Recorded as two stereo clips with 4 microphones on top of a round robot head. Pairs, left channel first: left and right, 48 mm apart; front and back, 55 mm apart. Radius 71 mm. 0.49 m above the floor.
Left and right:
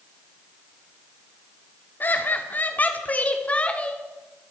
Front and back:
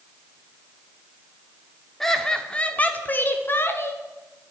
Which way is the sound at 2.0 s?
85° left.